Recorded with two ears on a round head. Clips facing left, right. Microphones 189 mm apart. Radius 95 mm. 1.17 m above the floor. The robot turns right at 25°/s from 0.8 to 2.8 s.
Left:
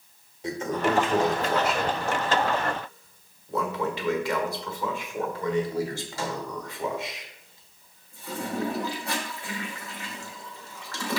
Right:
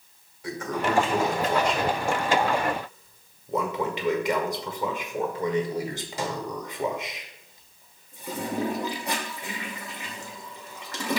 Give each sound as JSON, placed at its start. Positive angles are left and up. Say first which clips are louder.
{"t": 0.4, "sound": "a toilet flushing", "louder": "left 2 dB", "side_deg": 20, "distance_m": 1.2}